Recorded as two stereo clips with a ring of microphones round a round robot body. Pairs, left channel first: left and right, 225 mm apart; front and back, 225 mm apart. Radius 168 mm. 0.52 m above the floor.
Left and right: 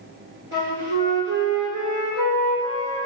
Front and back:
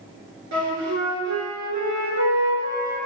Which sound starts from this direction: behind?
A flute, at 0.5 s.